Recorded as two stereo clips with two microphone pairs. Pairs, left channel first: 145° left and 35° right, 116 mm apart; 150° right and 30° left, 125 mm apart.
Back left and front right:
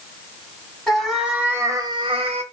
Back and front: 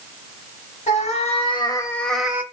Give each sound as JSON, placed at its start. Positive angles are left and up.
{"t": 0.9, "sound": "a cat meowing", "azimuth_deg": -125, "distance_m": 0.8}